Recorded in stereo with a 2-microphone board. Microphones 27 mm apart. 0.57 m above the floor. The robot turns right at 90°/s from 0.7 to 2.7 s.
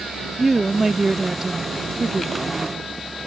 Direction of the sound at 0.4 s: 5° right (ahead or behind).